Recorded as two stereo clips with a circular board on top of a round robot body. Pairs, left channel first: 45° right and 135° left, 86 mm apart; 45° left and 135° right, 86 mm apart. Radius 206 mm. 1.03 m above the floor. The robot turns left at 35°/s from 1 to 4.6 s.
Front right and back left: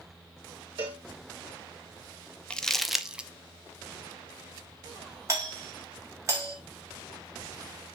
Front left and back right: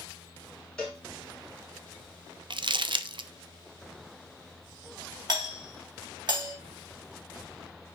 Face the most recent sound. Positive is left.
turn(degrees=-170)